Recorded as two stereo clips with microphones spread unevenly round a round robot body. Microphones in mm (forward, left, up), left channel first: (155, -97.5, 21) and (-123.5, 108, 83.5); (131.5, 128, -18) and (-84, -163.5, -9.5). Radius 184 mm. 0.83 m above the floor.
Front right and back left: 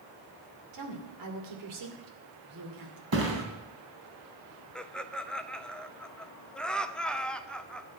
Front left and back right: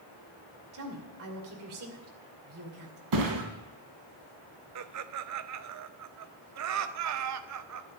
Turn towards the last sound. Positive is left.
turn(degrees=-110)